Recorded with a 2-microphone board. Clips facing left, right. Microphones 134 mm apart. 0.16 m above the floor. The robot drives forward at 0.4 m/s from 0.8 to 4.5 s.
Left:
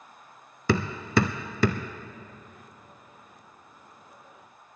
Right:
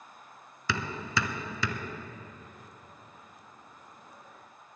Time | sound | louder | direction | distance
0.7 | hammering | left 8 dB | 50° left (ahead or behind) | 0.7 m